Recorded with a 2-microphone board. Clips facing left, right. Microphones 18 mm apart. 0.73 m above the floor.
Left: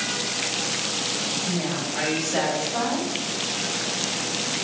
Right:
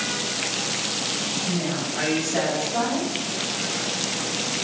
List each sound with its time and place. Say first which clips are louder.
1.4 s a woman speaking: right 1 dB; 30° left (ahead or behind), 1.5 m